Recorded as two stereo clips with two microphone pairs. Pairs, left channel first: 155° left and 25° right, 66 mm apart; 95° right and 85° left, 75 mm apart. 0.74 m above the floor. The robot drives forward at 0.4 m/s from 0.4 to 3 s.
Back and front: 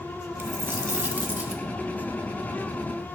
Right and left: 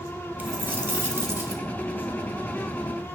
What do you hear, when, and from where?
0.4 s a dropped coin: 20° left, 1.2 m; by 1.6 s 35° left, 0.8 m